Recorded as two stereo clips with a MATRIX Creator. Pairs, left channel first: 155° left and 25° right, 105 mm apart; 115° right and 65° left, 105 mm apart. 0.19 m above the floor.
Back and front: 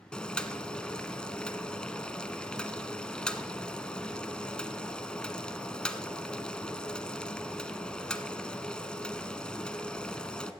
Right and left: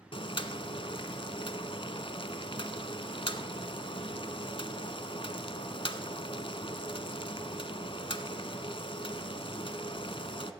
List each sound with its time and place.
0.1 s boiling: 125° right, 0.9 m